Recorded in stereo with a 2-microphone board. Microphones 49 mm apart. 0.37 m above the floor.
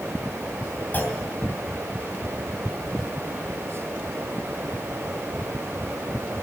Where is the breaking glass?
I don't hear breaking glass.